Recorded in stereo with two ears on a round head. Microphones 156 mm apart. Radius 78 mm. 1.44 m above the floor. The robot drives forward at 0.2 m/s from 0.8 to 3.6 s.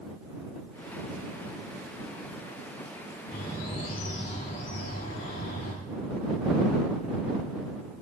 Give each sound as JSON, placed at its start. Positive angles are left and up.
{"t": 3.3, "sound": "a bird", "side_deg": 50, "distance_m": 2.0}